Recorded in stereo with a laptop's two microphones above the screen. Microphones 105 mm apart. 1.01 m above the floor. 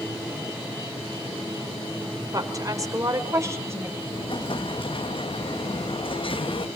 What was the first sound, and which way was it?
A woman speaking, 35° right (ahead or behind).